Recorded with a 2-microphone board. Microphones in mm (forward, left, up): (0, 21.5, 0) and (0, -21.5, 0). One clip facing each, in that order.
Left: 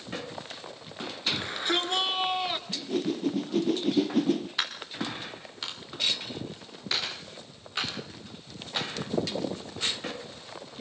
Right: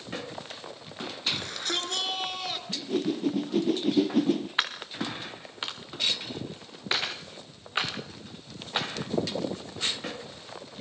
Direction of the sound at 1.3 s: 20° left (ahead or behind).